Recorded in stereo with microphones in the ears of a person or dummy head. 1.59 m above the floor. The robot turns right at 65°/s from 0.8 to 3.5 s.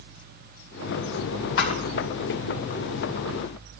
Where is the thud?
65° left (ahead or behind), 2.5 m.